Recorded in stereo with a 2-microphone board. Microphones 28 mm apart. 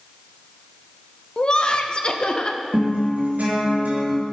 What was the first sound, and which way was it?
Laughter, 40° left (ahead or behind).